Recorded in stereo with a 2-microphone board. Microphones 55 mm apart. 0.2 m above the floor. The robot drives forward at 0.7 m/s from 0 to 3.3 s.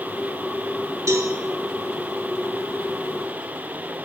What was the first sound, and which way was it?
A cowbell, 65° right (ahead or behind).